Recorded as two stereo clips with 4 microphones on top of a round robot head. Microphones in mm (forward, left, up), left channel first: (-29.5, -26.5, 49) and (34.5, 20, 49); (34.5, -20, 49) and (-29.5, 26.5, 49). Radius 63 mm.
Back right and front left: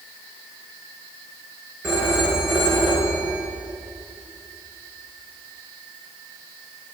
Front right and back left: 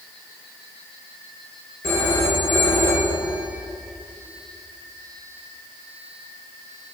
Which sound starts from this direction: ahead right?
A phone ringing, at 1.8 s.